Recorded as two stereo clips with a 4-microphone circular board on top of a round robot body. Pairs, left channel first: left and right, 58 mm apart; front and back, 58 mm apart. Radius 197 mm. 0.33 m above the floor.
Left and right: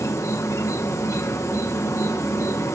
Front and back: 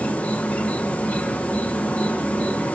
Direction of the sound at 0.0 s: 65° left.